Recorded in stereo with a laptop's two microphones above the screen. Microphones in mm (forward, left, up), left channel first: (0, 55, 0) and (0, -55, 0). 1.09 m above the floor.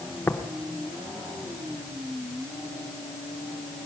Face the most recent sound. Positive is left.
turn(degrees=20)  # may be behind; listen again after turning